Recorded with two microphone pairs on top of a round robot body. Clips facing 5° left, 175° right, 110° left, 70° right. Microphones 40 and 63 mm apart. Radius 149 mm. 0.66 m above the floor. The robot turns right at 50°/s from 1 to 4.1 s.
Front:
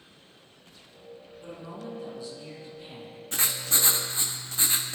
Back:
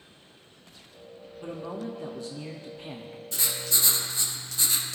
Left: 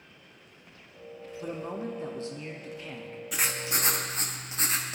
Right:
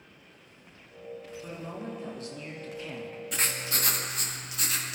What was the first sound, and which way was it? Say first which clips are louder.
A man speaking: back 5 dB, left 6 dB; 130° left.